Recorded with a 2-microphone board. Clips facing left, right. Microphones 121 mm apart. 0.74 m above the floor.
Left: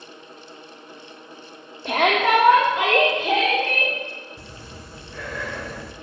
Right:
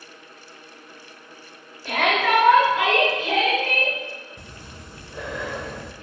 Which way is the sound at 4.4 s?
20° right (ahead or behind).